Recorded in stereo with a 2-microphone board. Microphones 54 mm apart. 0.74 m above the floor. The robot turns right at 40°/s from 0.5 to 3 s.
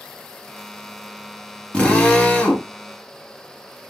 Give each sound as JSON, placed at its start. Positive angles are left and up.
{"t": 1.7, "sound": "a drill", "side_deg": 20, "distance_m": 1.0}